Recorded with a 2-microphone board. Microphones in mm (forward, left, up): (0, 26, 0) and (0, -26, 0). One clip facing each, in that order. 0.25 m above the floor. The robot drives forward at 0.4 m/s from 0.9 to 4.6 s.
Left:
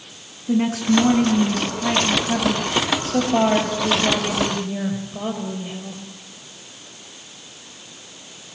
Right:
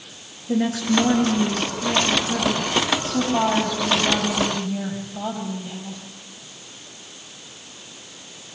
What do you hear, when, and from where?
0.5 s a woman speaking: 65° left (ahead or behind), 5.5 m; by 6.0 s 50° left (ahead or behind), 6 m